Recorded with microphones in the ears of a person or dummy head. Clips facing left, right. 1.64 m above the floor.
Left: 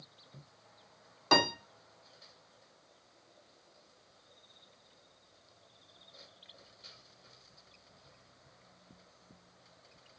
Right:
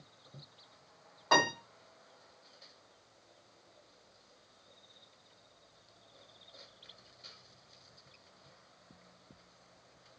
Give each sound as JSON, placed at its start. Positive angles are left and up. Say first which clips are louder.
{"t": 1.3, "sound": "a piano", "louder": "left 1 dB", "side_deg": 40, "distance_m": 2.0}